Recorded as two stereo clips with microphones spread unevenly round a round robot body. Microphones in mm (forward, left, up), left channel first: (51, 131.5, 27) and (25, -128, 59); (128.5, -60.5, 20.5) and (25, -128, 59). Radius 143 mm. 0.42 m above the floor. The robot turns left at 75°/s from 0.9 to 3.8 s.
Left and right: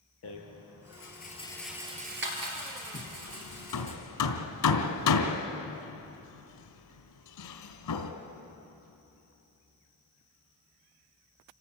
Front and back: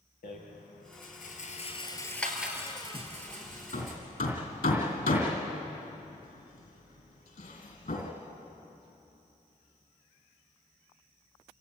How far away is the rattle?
About 3.5 m.